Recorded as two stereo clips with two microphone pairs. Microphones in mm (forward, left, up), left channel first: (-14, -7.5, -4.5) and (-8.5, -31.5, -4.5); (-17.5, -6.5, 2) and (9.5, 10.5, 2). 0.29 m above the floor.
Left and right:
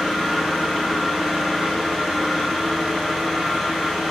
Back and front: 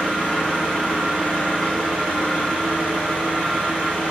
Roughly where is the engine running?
Behind right.